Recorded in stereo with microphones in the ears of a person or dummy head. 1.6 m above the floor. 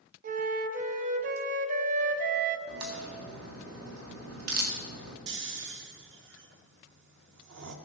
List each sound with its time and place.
0.2 s a flute: 55° right (ahead or behind), 1.0 m
2.7 s a crack: 75° right (ahead or behind), 2 m
5.3 s snoring: 55° right (ahead or behind), 1.0 m